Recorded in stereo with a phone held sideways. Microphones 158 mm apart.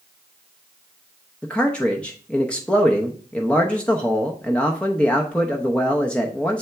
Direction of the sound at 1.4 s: 5° left (ahead or behind).